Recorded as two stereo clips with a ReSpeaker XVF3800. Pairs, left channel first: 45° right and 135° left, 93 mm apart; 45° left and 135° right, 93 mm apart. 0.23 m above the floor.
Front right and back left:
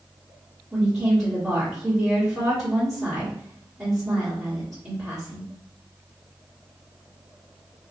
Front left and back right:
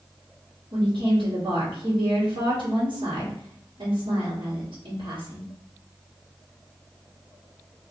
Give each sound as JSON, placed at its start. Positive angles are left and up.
{"t": 0.7, "sound": "a woman speaking", "azimuth_deg": -140, "distance_m": 2.0}